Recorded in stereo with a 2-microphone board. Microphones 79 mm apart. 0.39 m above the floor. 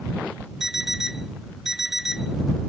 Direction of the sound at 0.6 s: 5° right (ahead or behind).